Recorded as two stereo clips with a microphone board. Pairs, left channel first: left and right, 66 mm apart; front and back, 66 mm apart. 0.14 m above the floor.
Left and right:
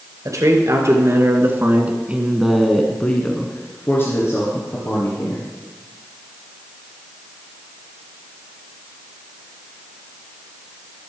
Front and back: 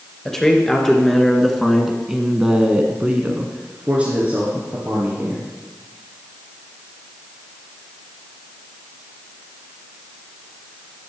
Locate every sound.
0.2 s a man speaking: 75° right, 3 m; by 5.5 s 115° left, 3.5 m